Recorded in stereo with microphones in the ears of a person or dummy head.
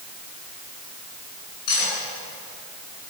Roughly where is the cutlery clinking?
Left.